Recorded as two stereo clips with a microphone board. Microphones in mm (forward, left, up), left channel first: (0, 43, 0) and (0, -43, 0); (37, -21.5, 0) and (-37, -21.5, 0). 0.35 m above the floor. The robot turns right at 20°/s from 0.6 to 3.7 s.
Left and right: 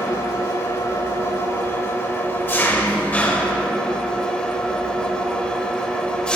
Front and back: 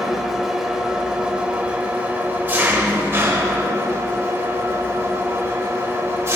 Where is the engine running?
100° left, 1.4 m; by 6.4 s 160° left, 1.4 m.